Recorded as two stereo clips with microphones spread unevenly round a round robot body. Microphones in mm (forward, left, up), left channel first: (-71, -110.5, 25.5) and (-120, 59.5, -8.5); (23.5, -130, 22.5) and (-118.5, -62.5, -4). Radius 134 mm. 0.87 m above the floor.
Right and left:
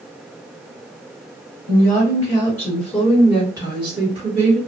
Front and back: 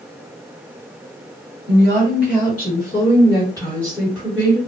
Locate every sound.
1.7 s a woman speaking: 5° right, 1.6 m; by 4.6 s 90° left, 1.3 m